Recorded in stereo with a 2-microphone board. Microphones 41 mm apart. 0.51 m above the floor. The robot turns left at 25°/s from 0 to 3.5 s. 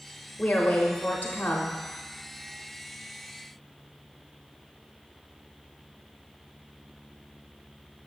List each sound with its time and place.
0.4 s a woman speaking: 125° left, 0.8 m; by 1.8 s 90° left, 0.8 m